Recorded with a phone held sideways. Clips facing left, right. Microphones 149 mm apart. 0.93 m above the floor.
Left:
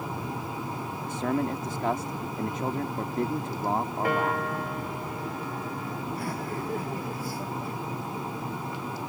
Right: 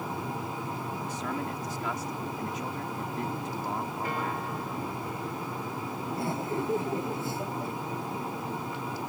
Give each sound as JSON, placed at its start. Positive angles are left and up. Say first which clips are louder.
{"t": 1.1, "sound": "a man speaking", "louder": "left 9 dB", "side_deg": 55}
{"t": 4.0, "sound": "a piano", "louder": "left 6 dB", "side_deg": 85}
{"t": 6.1, "sound": "laughter", "louder": "right 5 dB", "side_deg": -25}